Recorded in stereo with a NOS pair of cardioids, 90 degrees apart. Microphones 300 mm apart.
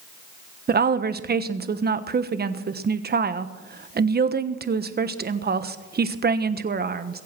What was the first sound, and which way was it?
A woman speaking, 35° right.